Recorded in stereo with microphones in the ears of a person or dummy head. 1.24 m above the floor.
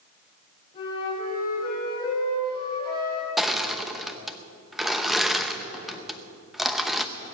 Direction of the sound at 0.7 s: 25° left (ahead or behind).